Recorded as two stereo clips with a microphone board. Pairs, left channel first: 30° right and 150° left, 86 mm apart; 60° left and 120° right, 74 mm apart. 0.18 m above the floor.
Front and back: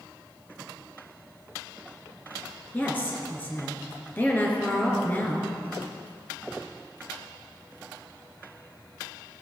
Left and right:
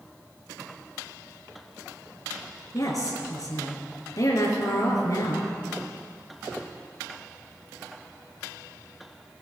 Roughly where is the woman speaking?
Ahead left.